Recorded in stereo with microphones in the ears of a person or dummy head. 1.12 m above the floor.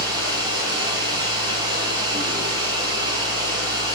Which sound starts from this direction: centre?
Running water, at 0.0 s.